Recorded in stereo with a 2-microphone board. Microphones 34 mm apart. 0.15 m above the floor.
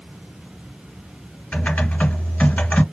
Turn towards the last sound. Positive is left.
turn(degrees=45)  # may be behind; listen again after turning